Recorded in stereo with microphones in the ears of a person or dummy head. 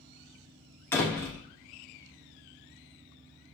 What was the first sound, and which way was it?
A door slam, 10° left (ahead or behind).